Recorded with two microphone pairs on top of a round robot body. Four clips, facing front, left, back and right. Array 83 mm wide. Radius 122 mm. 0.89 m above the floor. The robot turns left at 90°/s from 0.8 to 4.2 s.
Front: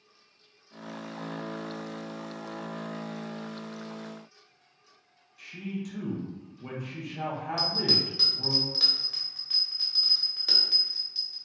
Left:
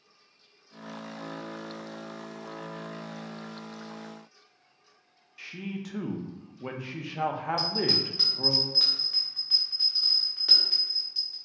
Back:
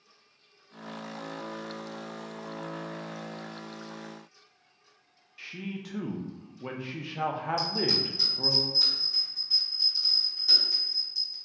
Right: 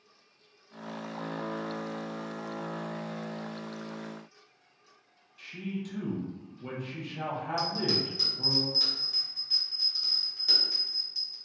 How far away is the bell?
About 0.9 m.